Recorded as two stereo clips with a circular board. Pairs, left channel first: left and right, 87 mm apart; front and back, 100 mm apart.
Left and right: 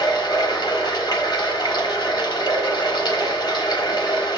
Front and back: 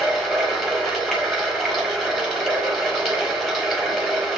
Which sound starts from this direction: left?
Running water, at 0.0 s.